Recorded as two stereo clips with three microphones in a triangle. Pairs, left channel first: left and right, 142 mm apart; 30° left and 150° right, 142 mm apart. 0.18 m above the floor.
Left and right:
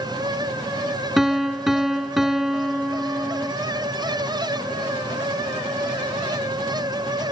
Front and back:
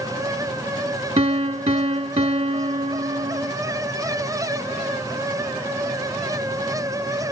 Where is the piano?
175° right.